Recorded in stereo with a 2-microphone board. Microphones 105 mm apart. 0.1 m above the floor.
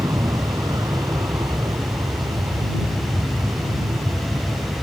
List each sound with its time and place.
0.0 s an aircraft: 35° right (ahead or behind)